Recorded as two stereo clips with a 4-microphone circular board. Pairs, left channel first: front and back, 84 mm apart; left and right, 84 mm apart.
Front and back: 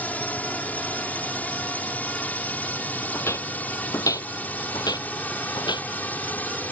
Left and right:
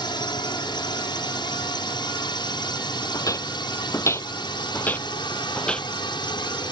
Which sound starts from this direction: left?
A drone, at 0.0 s.